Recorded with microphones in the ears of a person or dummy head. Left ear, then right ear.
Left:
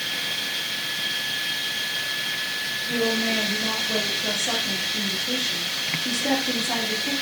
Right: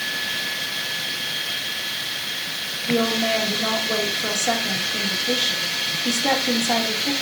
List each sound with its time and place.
2.9 s a woman speaking: 70° right (ahead or behind), 2.5 m